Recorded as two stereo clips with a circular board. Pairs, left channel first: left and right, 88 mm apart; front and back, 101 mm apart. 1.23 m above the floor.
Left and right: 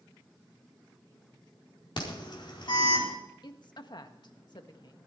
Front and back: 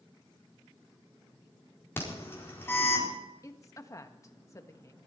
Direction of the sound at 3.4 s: 60° left.